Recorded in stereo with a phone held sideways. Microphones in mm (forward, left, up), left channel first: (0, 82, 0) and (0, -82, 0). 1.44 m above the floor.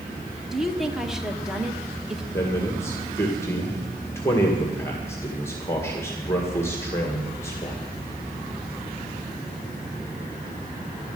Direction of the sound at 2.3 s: 15° left (ahead or behind).